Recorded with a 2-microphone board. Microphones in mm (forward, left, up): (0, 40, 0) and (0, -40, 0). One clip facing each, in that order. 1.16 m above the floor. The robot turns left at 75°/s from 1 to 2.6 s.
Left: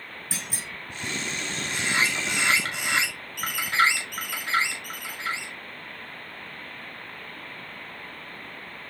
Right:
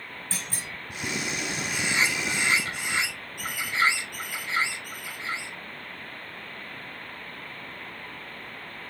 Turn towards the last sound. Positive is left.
turn(degrees=85)